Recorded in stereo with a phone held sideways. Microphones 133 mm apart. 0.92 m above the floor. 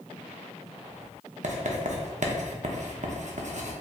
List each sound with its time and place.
1.4 s writing: 60° right (ahead or behind), 0.6 m